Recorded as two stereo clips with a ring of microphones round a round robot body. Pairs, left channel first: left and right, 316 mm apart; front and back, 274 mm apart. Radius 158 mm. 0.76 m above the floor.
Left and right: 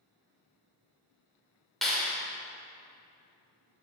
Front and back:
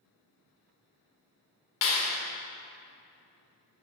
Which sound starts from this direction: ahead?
A clap, at 1.8 s.